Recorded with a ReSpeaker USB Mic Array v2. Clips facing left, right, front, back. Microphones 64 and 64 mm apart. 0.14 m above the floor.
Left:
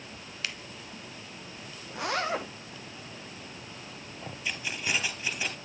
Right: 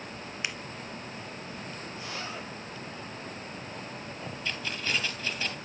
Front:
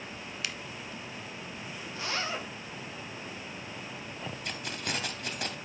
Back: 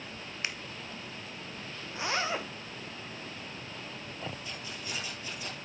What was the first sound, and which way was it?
A finger snap, 145° right.